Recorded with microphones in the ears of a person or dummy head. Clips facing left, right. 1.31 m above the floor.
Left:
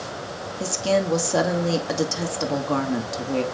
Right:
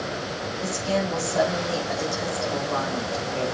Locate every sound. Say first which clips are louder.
0.6 s a woman speaking: left 4 dB; 90° left, 2.5 m